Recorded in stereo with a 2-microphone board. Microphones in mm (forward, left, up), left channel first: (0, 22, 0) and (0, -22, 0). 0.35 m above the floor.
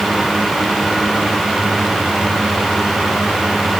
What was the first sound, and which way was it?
Only background noise.